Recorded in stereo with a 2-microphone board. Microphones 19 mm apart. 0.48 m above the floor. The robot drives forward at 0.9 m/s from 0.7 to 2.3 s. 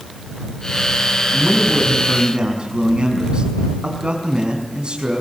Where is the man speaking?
50° right (ahead or behind), 6 m; by 5.2 s 55° right (ahead or behind), 5.5 m.